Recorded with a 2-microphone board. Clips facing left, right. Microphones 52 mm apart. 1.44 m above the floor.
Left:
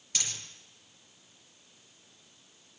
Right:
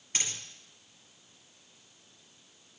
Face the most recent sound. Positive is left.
turn(degrees=-35)  # may be behind; listen again after turning